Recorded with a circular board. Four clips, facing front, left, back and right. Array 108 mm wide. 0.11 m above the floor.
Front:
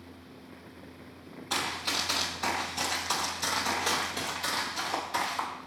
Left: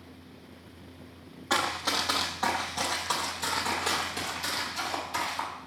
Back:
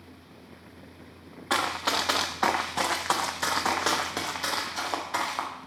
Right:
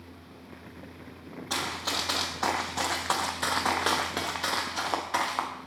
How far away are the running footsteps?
About 1.2 m.